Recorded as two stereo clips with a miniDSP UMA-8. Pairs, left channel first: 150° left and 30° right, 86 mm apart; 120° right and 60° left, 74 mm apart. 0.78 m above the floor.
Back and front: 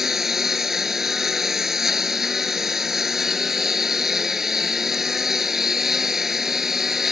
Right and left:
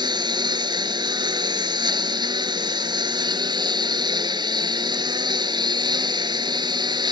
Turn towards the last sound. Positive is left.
turn(degrees=55)